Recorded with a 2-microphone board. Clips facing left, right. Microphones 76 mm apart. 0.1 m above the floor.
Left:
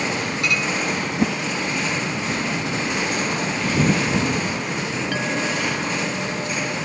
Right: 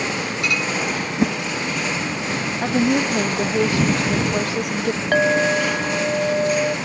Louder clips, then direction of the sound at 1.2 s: Right 2 dB; 5° right (ahead or behind).